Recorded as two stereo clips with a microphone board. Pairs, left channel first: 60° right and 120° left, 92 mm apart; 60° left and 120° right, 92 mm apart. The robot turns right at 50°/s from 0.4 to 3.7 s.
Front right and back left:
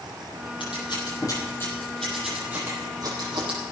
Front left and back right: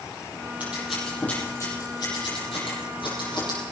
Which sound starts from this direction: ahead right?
Scissors, at 0.6 s.